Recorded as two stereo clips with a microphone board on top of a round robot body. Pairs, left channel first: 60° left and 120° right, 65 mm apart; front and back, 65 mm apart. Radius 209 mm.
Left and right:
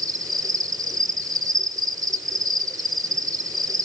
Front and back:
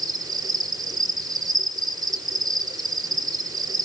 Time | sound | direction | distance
0.0 | an insect | 155° right | 2.5 m